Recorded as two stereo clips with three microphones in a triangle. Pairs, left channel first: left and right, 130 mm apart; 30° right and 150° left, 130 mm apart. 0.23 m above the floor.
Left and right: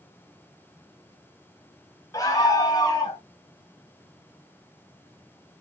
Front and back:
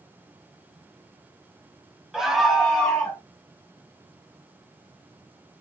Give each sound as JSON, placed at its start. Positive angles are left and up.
{"t": 2.1, "sound": "a scream", "azimuth_deg": 70, "distance_m": 1.1}